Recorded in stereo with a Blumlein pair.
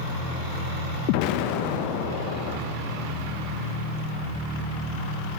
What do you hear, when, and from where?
1.1 s an explosion: 45° left, 1.4 m